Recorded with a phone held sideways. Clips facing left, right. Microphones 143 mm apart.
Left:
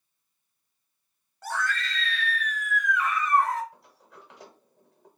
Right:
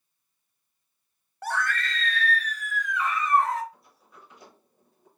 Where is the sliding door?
80° left, 1.0 m.